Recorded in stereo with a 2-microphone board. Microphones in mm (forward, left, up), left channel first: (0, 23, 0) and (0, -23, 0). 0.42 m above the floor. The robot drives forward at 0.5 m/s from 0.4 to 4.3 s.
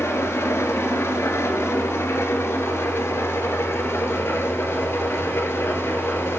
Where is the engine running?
80° left, 4.5 m; by 6.4 s 65° left (ahead or behind), 5 m.